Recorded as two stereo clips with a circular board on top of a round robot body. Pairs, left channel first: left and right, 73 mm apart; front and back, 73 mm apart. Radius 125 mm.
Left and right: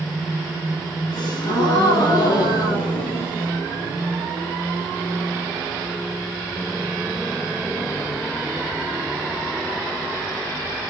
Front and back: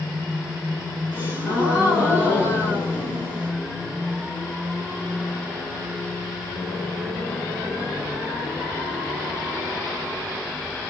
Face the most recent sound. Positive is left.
turn(degrees=65)